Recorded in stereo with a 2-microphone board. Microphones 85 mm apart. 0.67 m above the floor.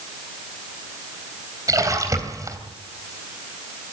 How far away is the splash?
About 3 m.